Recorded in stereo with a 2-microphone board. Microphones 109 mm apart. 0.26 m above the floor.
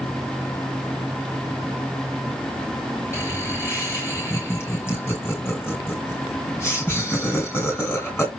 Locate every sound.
3.1 s laughter: 25° left (ahead or behind), 2 m